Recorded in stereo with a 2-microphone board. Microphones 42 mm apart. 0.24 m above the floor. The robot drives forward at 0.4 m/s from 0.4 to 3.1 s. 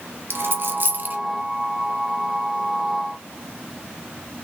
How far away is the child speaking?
I don't hear a child speaking.